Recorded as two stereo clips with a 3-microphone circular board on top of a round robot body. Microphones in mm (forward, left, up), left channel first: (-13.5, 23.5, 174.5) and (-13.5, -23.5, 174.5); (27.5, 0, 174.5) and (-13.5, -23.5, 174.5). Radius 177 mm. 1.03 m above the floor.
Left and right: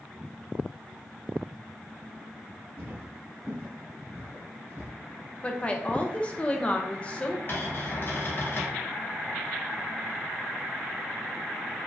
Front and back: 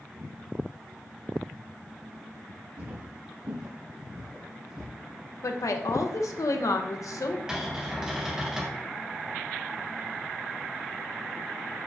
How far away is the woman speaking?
About 0.7 m.